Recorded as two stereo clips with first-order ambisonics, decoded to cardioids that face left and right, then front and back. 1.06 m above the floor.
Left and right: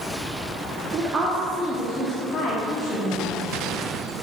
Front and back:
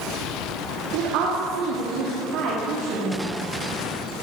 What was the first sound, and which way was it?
A woman speaking, 155° right.